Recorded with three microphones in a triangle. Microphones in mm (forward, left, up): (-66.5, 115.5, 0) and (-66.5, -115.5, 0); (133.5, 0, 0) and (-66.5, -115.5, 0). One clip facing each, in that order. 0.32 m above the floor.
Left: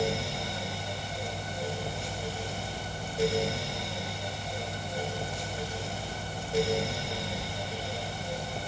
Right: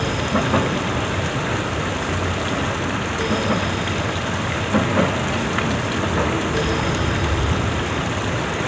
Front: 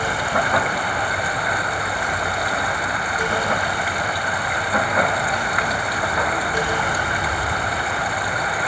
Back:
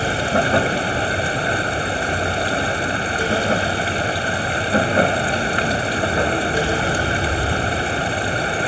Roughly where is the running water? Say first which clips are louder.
Right 10 dB, back 4 dB; right.